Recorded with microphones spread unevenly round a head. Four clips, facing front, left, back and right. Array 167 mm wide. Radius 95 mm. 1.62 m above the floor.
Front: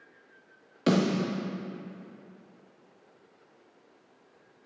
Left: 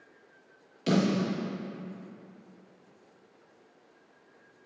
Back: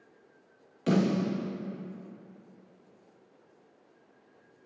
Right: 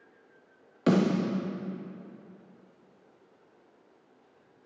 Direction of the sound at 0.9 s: 40° right.